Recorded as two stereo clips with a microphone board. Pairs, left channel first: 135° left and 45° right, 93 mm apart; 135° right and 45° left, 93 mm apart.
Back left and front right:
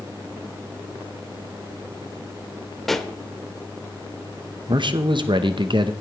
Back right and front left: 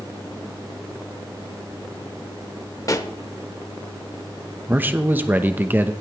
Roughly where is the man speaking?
Ahead right.